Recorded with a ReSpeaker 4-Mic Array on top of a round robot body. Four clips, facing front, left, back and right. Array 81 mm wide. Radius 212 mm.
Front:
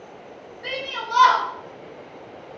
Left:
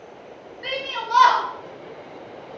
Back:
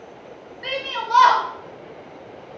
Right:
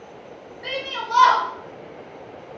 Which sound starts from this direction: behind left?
A shout, at 0.6 s.